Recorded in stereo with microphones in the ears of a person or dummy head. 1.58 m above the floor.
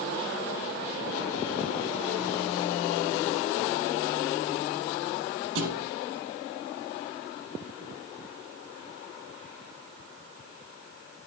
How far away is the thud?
About 5 m.